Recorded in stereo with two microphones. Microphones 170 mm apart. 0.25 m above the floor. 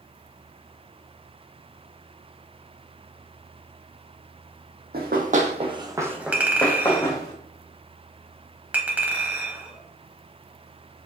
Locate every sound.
4.9 s running footsteps: 65° right (ahead or behind), 0.7 m; by 7.3 s 20° left (ahead or behind), 1.1 m
6.3 s a clink: 10° right (ahead or behind), 0.7 m